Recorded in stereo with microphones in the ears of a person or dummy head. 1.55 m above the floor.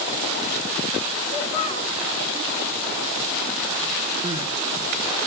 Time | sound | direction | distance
1.3 | a child speaking | 35° left (ahead or behind) | 2.5 m
4.2 | crying | 25° right (ahead or behind) | 1.1 m